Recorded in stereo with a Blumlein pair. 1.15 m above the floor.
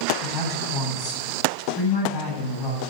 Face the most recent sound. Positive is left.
turn(degrees=30)